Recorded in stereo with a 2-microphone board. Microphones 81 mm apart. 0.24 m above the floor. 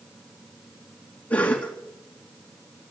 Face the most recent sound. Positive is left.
turn(degrees=20)  # may be behind; listen again after turning